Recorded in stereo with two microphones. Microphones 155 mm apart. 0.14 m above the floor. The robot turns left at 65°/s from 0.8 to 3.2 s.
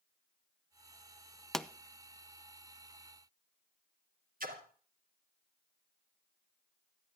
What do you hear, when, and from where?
1.5 s a pop: centre (ahead or behind), 0.6 m; by 1.7 s 5° left (ahead or behind), 0.6 m
4.4 s a splash: 65° right (ahead or behind), 2 m